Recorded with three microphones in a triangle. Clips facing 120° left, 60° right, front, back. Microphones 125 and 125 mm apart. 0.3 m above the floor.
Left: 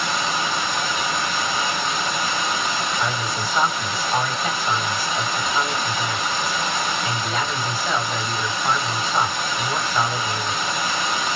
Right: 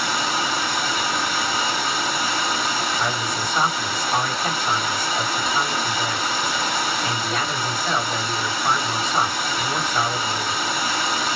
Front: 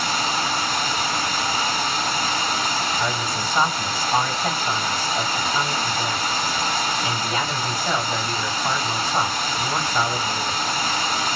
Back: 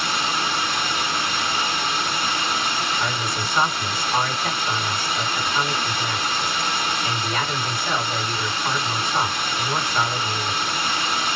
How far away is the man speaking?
About 2.0 m.